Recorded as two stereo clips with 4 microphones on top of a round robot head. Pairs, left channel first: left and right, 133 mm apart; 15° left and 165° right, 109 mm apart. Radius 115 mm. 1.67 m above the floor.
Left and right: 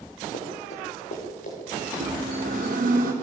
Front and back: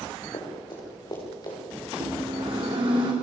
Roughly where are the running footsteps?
Ahead left.